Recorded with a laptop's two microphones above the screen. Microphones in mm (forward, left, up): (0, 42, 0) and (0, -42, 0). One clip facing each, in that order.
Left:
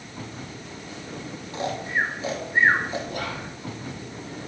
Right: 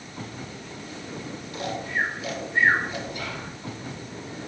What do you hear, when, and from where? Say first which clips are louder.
1.5 s snoring: left 2 dB; 30° left (ahead or behind), 1.0 m
3.1 s whispering: left 3 dB; 55° left (ahead or behind), 1.4 m